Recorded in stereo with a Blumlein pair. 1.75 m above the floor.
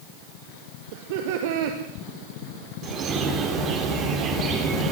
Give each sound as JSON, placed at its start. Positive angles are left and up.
{"t": 0.9, "sound": "laughter", "azimuth_deg": -50, "distance_m": 2.5}
{"t": 2.8, "sound": "a bird", "azimuth_deg": -30, "distance_m": 5.0}